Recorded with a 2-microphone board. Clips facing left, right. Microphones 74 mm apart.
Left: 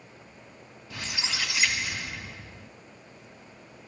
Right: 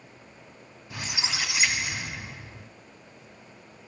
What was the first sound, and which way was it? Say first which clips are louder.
A squeak: right 1 dB; 15° right (ahead or behind).